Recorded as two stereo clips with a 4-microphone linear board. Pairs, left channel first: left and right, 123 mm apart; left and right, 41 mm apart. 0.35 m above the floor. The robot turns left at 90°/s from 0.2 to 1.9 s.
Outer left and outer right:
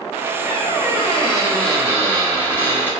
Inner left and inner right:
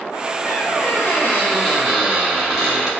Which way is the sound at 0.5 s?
115° left.